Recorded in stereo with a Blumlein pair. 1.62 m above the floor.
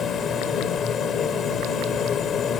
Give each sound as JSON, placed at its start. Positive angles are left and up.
{"t": 0.0, "sound": "a machine running", "azimuth_deg": 25}